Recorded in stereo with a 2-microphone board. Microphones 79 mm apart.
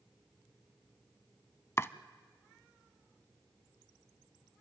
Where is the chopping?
30° left (ahead or behind), 0.6 m.